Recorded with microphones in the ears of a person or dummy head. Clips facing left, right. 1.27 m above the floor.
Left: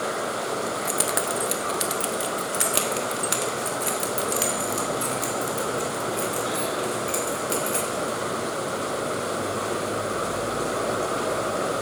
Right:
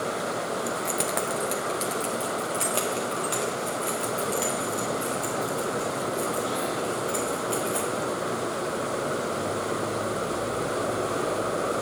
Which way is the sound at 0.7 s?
5° right (ahead or behind).